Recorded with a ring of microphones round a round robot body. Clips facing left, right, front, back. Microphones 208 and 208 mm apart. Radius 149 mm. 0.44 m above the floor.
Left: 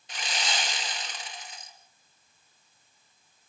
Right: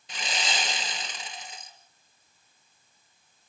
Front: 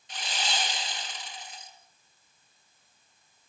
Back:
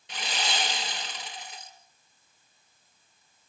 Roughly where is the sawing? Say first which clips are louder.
Right 1 dB, back 2 dB; behind right.